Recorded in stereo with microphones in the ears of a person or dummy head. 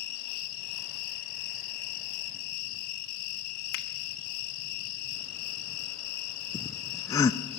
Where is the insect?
50° left (ahead or behind), 3.5 m.